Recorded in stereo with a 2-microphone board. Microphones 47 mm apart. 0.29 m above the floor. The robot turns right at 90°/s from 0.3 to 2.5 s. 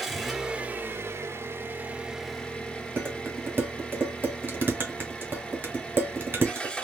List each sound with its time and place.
0.0 s an engine running: straight behind, 1.4 m; by 6.9 s 15° left, 1.4 m
3.0 s dishes clattering: 55° right (ahead or behind), 1.4 m